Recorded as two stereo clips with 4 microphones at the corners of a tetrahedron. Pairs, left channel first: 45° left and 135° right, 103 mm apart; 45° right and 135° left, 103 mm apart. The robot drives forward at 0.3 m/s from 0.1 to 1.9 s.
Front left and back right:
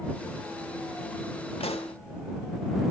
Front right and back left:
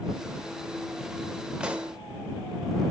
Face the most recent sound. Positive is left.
turn(degrees=60)